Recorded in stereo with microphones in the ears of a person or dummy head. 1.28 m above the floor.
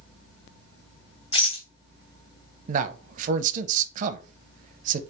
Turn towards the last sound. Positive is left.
turn(degrees=-50)  # may be behind; listen again after turning